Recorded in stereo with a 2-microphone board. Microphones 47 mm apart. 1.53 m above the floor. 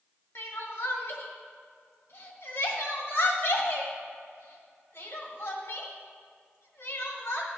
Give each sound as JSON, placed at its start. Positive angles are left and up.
{"t": 0.3, "sound": "crying", "side_deg": 55, "distance_m": 1.4}